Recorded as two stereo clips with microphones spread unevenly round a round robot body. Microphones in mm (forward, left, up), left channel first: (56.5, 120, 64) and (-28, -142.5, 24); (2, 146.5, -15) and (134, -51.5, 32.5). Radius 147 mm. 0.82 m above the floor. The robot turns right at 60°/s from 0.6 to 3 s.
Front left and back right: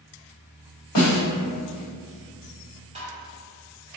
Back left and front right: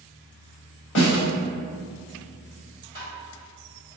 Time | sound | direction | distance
0.9 | a snare drum | 85° left | 1.9 m
3.0 | tapping | 175° right | 1.7 m